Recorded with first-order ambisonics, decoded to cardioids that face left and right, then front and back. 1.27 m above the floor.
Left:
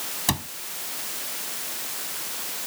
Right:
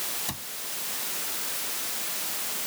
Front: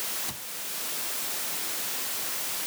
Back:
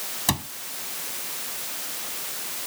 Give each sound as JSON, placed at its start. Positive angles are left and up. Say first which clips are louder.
{"t": 0.3, "sound": "a cupboard door", "louder": "left 9 dB, back 12 dB", "azimuth_deg": 140}